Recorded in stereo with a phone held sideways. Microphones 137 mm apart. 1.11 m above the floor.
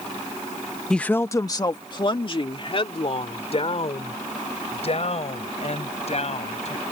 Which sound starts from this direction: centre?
A woman speaking, at 0.9 s.